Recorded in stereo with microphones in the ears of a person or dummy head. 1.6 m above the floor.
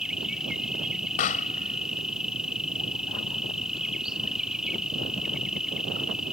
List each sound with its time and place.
0.0 s an insect: 5° right (ahead or behind)
1.2 s a pop: 45° left (ahead or behind)